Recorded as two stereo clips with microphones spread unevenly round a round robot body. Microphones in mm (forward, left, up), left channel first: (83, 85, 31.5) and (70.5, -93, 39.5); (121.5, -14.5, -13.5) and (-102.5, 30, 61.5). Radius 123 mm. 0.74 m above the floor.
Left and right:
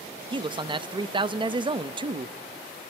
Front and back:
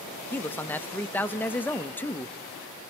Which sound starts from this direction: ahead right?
A man speaking, at 0.3 s.